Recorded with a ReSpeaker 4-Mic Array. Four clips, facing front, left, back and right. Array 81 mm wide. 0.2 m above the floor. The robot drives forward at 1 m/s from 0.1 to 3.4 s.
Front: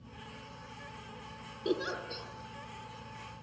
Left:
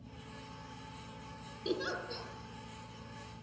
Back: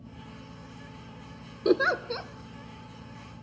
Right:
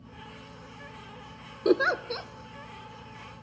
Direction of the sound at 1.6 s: 125° right.